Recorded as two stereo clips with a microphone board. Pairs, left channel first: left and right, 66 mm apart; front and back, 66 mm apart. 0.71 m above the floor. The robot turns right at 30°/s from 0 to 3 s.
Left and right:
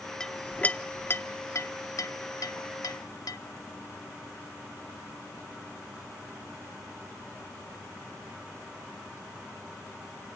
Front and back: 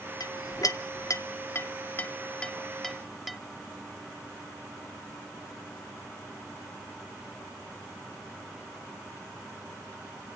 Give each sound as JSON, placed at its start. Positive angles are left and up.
{"t": 0.2, "sound": "a clink", "azimuth_deg": 10, "distance_m": 0.6}